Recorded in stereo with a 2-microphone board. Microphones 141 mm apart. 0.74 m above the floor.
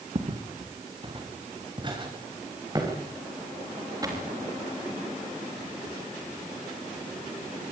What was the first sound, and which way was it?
Footsteps, 45° right (ahead or behind).